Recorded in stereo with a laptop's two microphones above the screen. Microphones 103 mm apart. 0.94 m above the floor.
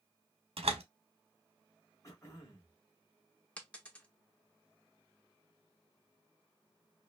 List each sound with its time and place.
0.6 s a door slam: 80° right, 1.0 m
2.0 s throat clearing: 30° left (ahead or behind), 1.3 m
3.6 s a dropped coin: 10° left (ahead or behind), 0.7 m